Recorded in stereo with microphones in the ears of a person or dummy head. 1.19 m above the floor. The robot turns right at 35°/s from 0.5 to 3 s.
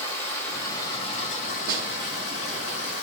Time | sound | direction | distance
0.0 | running water | 10° left | 1.4 m
1.7 | a snare drum | 50° right (ahead or behind) | 1.0 m